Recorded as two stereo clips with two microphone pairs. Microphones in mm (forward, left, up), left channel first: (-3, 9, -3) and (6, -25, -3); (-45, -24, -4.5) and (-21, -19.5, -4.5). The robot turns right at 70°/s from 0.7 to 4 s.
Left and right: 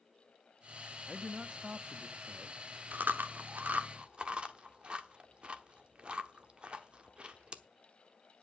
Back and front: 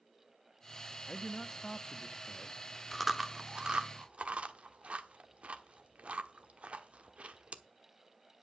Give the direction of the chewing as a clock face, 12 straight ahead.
3 o'clock.